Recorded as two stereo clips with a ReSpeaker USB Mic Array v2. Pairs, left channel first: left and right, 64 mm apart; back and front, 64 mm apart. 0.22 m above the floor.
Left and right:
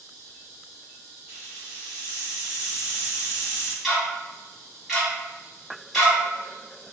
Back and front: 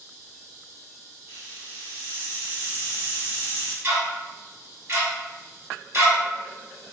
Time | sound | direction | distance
1.3 | a hiss | 25° right | 1.6 m
3.8 | ticking | straight ahead | 1.5 m